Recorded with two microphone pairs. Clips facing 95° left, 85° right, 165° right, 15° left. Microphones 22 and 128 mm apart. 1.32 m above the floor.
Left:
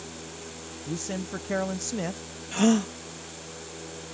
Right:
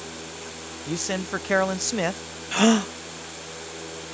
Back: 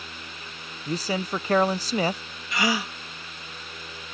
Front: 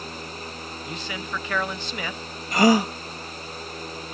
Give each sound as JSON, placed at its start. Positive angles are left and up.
{"t": 0.9, "sound": "a man speaking", "azimuth_deg": -120}
{"t": 2.5, "sound": "a gasp", "azimuth_deg": -30}